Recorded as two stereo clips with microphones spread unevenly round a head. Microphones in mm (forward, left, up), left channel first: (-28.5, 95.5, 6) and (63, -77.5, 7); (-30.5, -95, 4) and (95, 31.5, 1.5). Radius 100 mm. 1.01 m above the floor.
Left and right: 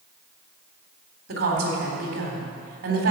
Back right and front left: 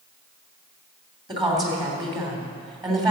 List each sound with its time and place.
1.3 s a woman speaking: 20° right, 3.5 m